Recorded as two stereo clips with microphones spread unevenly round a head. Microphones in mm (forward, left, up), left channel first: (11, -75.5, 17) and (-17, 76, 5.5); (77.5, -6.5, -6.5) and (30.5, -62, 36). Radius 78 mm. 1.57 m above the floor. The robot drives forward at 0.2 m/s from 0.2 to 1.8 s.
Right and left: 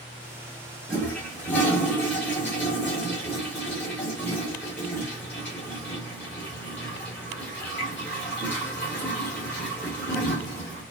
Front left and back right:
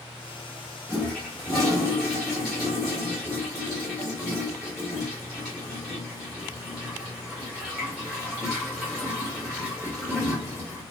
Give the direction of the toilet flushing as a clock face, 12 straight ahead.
4 o'clock.